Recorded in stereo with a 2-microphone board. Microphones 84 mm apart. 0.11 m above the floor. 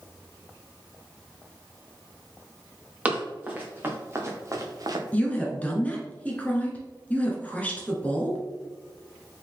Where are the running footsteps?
15° right (ahead or behind), 2.5 m; by 5.0 s 55° right (ahead or behind), 1.1 m.